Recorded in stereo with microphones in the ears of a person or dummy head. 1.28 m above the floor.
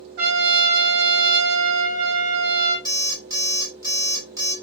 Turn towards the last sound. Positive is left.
turn(degrees=-20)  # may be behind; listen again after turning